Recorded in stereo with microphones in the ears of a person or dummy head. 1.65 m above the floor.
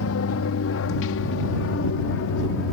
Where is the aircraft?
70° left (ahead or behind); by 2.7 s 60° left (ahead or behind).